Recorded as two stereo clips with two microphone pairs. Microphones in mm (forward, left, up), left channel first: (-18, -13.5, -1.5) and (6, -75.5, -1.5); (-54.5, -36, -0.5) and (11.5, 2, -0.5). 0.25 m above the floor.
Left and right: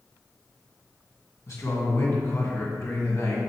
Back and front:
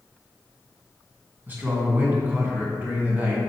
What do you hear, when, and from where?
1.5 s a man speaking: 90° left, 2 m